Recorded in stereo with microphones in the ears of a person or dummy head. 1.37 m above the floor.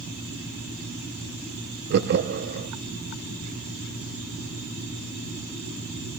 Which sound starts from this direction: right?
Laughter, at 1.9 s.